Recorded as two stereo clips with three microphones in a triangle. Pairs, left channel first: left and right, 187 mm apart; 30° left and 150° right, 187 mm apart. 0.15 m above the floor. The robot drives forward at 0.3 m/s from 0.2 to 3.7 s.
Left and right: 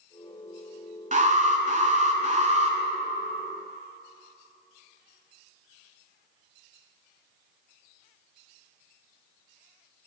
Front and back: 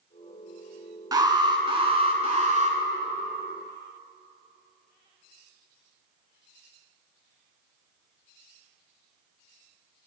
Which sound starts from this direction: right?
An alarm, at 1.1 s.